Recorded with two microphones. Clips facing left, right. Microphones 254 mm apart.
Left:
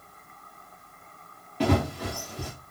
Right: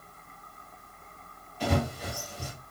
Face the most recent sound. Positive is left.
turn(degrees=70)  # may be behind; listen again after turning